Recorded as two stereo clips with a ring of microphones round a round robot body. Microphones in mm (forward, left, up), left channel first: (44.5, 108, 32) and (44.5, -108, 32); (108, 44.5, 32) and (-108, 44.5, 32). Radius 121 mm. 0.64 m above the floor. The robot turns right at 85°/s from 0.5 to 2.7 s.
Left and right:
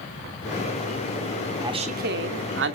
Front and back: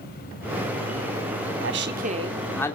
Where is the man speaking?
165° right, 2.5 m; by 2.8 s 75° right, 2.5 m.